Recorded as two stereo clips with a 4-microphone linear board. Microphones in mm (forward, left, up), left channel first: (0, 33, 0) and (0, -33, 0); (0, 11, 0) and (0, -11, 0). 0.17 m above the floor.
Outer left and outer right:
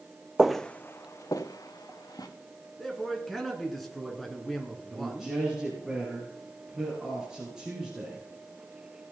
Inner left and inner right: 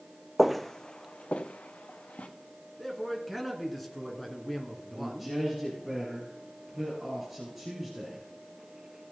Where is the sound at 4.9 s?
10° right (ahead or behind), 4 m.